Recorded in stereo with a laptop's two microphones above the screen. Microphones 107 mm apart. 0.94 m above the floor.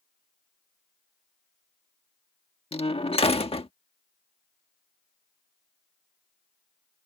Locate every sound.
2.7 s a door slam: 55° left (ahead or behind)